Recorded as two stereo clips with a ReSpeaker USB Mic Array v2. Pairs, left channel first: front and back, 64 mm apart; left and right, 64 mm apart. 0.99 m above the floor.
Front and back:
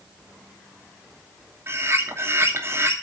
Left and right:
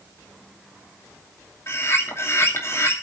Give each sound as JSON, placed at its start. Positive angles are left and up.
{"t": 1.7, "sound": "a bird", "azimuth_deg": 135, "distance_m": 2.5}